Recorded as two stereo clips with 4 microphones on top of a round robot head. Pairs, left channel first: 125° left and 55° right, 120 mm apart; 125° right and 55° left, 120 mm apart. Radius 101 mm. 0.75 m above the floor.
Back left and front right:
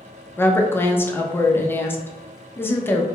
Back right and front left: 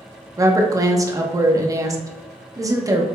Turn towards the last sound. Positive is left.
turn(degrees=75)